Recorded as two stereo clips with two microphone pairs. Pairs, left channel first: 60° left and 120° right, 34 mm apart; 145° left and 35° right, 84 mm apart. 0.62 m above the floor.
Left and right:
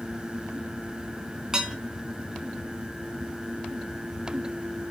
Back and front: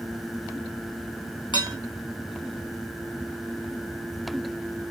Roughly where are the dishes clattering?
Behind.